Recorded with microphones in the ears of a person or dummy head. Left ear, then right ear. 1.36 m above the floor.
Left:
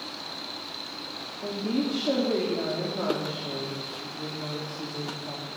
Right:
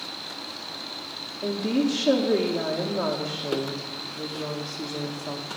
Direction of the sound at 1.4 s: 75° right (ahead or behind).